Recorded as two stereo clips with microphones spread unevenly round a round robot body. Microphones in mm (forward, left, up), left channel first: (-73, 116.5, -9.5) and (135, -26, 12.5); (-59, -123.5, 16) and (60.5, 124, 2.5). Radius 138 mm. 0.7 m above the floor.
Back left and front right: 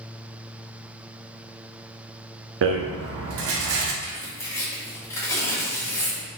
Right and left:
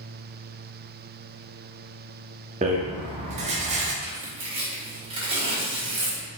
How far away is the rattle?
About 0.7 m.